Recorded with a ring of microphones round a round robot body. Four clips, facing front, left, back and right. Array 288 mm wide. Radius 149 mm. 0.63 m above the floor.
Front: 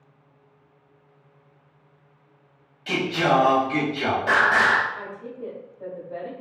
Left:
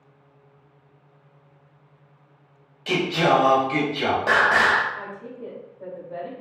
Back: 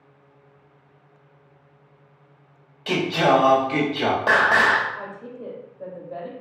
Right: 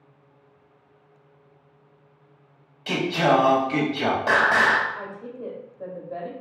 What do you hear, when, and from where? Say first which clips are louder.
2.9 s singing: left 1 dB, back 3 dB; 170° left, 1.2 m
5.0 s a woman speaking: even, even; 130° right, 1.2 m